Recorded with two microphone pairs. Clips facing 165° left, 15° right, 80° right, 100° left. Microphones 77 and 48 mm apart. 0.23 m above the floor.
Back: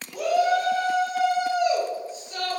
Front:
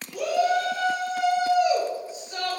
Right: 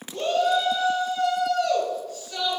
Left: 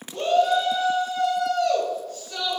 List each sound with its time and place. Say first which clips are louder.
0.1 s a shout: back 1 dB, left 2 dB; 175° left, 1.6 m; by 2.6 s 10° right, 1.5 m